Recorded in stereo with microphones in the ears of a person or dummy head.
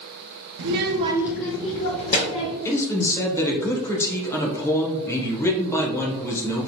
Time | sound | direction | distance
0.6 | a child speaking | 70° right (ahead or behind) | 0.7 m
2.6 | a man speaking | 10° left (ahead or behind) | 0.9 m